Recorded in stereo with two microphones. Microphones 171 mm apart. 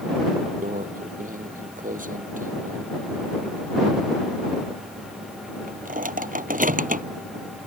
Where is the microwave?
50° right (ahead or behind).